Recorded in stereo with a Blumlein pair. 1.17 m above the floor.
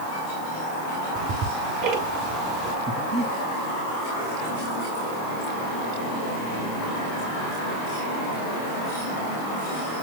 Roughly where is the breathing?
Ahead.